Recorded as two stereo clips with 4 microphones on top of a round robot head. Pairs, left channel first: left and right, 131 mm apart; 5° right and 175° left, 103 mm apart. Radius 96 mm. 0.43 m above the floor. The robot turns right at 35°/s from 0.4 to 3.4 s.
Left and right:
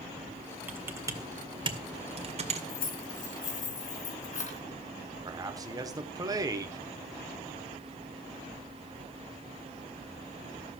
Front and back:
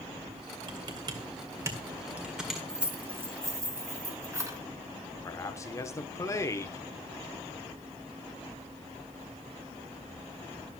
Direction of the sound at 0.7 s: 165° right.